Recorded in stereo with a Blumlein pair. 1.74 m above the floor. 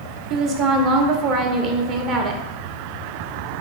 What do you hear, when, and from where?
0.3 s a woman speaking: 35° right, 0.9 m